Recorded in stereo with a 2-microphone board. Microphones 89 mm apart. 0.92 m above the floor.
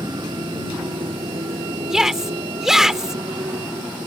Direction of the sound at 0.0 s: 55° right (ahead or behind).